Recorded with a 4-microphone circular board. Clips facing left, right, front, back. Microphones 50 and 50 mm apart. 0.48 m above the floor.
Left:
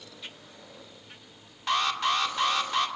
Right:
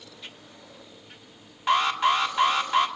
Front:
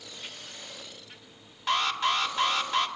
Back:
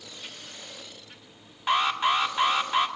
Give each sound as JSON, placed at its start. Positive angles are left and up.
{"t": 1.7, "sound": "an alarm", "azimuth_deg": -135, "distance_m": 1.8}